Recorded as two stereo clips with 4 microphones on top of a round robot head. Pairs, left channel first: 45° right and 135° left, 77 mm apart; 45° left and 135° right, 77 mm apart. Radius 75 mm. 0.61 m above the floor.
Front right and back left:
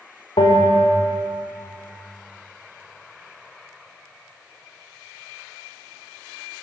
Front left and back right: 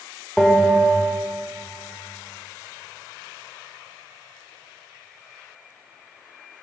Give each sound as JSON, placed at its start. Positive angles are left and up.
{"t": 0.4, "sound": "a bell", "azimuth_deg": -45, "distance_m": 2.5}